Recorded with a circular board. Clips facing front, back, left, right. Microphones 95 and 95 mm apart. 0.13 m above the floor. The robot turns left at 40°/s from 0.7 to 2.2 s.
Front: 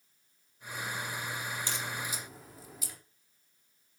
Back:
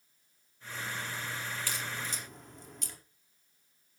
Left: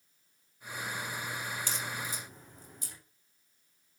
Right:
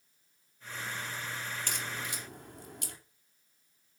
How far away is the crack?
About 4 m.